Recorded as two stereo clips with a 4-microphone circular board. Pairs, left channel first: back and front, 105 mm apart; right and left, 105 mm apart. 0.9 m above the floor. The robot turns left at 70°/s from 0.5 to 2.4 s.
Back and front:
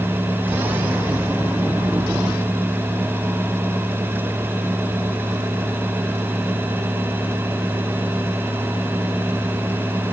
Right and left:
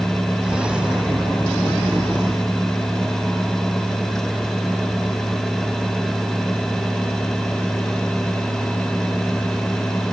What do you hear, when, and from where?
Only background noise.